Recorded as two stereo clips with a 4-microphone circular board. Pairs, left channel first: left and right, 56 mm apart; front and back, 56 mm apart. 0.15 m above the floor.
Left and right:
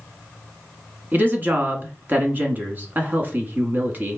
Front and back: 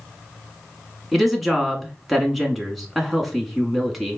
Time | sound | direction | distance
1.1 | a woman speaking | 90° right | 1.2 m